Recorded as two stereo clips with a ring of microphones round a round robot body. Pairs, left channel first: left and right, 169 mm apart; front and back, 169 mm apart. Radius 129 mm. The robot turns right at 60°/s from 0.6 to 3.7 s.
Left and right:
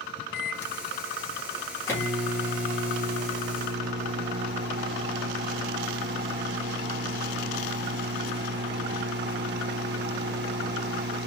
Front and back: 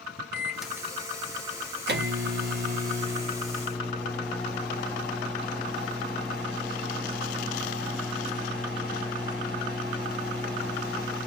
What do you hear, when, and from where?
0.3 s a microwave: 90° left, 1.2 m; by 11.3 s 85° right, 1.2 m